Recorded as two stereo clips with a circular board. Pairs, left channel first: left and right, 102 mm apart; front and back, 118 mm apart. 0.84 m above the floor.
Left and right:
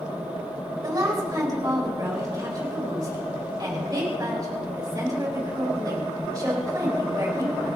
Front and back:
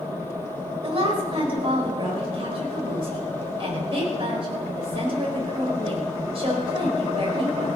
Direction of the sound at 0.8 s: 145° right.